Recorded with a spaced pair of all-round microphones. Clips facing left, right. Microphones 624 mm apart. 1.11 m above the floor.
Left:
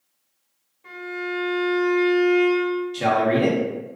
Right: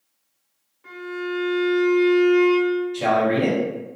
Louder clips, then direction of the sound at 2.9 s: Even; 45° left (ahead or behind).